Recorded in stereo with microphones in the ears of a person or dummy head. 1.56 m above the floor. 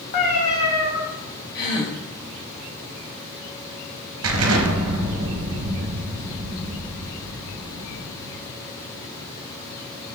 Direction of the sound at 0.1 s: 30° left (ahead or behind).